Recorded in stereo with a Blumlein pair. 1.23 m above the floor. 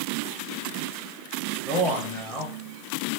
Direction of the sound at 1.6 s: 10° right.